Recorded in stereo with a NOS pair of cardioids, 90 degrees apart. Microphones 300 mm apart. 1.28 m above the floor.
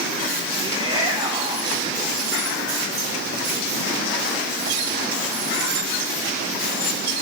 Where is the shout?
15° right, 4.5 m.